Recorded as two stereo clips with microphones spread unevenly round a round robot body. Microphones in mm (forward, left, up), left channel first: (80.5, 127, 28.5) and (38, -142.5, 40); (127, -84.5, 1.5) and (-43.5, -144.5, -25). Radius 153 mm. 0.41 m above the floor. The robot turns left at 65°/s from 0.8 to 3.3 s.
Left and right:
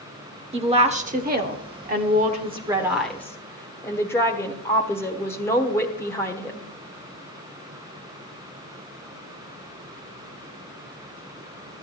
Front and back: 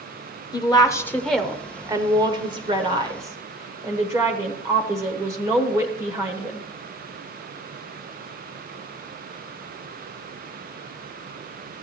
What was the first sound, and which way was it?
A woman speaking, 45° right.